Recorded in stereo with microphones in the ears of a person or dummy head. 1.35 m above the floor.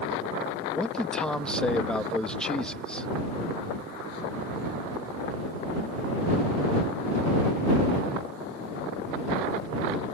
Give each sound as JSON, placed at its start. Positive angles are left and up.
{"t": 0.7, "sound": "a man speaking", "side_deg": 0}